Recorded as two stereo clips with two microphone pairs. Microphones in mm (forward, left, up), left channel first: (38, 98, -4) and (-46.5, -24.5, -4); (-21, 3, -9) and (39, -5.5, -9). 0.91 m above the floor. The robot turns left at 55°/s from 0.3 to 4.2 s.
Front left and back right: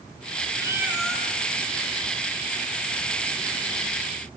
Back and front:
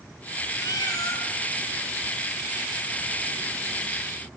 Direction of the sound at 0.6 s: 170° left.